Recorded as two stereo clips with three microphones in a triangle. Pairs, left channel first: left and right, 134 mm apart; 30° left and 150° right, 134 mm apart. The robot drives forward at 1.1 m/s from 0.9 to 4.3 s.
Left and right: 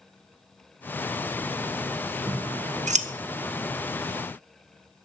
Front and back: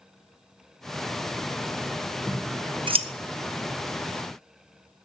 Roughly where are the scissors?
Ahead right.